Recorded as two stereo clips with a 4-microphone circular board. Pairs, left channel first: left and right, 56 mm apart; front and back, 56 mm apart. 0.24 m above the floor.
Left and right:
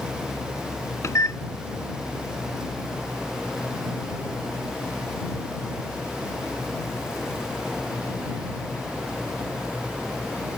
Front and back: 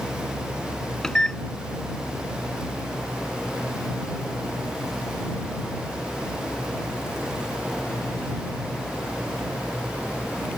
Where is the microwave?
75° left.